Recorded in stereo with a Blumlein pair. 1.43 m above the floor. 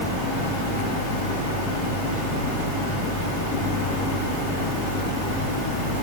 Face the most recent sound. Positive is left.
No sound to turn to.